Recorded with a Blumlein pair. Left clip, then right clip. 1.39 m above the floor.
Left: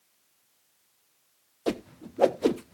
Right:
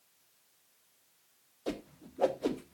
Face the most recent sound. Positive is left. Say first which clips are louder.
# left 8 dB
turn(degrees=25)